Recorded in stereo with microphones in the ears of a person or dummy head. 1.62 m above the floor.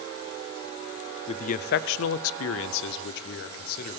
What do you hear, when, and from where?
1.3 s a man speaking: 35° left (ahead or behind), 0.6 m; by 4.0 s 55° left (ahead or behind), 1.3 m